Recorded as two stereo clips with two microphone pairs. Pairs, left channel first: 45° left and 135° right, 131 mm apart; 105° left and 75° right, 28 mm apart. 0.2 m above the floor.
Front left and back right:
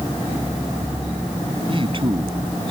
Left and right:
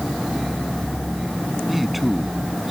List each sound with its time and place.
1.7 s a man speaking: 160° right